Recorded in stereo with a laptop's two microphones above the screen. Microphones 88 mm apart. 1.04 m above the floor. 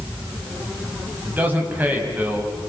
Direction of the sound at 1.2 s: 20° right (ahead or behind).